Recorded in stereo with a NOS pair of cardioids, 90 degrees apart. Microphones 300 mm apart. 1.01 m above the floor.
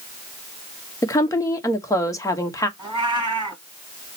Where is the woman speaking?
10° left, 1.1 m.